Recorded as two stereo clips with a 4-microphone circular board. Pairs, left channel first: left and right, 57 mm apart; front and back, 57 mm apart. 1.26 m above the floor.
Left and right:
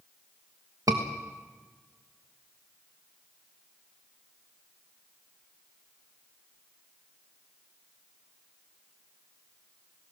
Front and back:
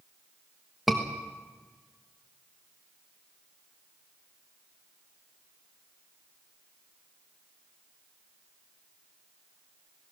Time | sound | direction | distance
0.9 | a scream | 90° right | 1.3 m